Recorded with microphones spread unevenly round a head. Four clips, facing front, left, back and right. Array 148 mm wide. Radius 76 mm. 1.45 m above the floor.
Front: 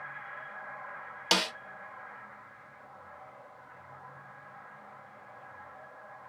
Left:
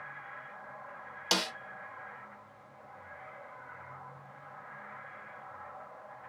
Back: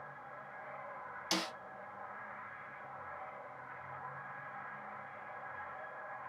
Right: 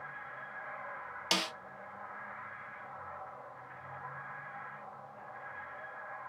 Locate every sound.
1.3 s a snare drum: 20° left, 0.8 m